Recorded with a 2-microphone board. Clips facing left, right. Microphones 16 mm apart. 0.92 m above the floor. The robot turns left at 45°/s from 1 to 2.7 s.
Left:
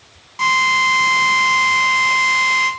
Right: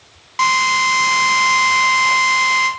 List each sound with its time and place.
0.4 s a drill: 75° right, 0.6 m; by 2.7 s 155° right, 0.6 m